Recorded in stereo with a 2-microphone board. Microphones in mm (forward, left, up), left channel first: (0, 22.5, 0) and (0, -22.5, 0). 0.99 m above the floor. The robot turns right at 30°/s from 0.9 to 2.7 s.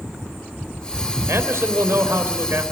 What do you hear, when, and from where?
1.3 s a man speaking: 105° right, 3.5 m; by 2.6 s 65° right, 3.5 m